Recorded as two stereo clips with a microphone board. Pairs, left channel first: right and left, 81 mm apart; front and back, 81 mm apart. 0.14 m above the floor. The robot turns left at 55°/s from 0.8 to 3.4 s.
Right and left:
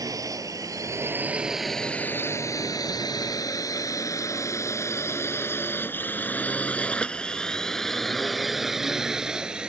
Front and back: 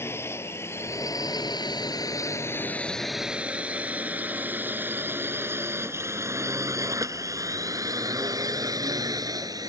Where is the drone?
55° left; by 9.7 s 165° left.